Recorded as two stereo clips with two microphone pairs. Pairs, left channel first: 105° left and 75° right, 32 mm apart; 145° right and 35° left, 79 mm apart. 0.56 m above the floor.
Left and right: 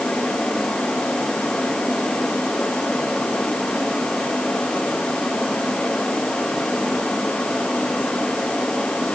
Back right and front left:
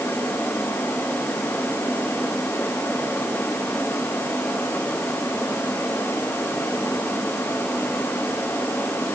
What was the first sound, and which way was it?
Only background noise.